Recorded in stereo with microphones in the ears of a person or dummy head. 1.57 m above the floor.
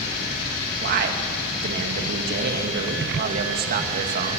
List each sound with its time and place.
0.8 s a man speaking: 50° right (ahead or behind), 2.5 m